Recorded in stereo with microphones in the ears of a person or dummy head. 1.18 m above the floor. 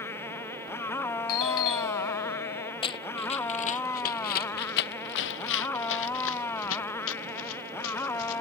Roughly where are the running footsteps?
Left.